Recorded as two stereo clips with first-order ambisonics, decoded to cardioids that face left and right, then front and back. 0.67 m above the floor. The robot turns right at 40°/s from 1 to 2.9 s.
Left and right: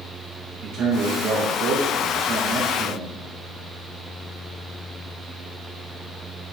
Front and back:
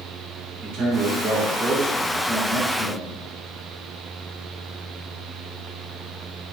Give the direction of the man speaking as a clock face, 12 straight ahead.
4 o'clock.